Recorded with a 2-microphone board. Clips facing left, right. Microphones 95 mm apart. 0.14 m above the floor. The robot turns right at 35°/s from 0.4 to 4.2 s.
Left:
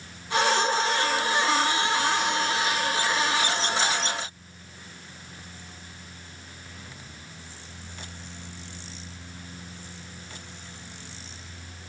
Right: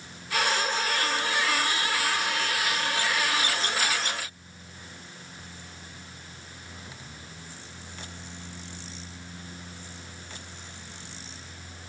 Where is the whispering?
No whispering in this recording.